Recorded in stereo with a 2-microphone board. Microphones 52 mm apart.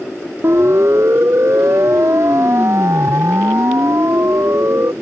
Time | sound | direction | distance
0.4 | a siren | 55° right (ahead or behind) | ?